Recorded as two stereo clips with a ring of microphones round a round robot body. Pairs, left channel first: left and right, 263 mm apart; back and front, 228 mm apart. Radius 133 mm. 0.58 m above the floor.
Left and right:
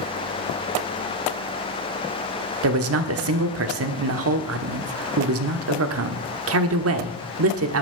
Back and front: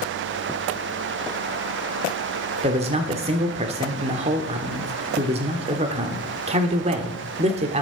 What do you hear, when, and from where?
2.6 s a man speaking: 65° right, 1.2 m